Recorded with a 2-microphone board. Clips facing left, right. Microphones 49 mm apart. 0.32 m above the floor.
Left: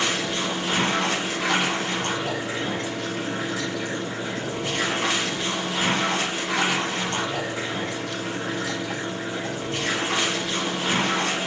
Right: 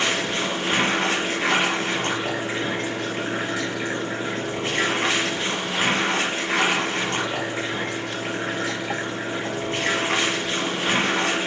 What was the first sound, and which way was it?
Running water, 45° right (ahead or behind).